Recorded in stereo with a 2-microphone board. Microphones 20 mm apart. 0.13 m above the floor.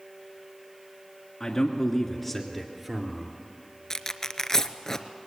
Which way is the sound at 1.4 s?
30° left (ahead or behind).